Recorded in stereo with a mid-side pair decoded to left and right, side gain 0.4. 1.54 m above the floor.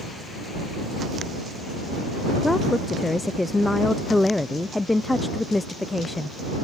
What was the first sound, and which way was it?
A woman speaking, 15° left.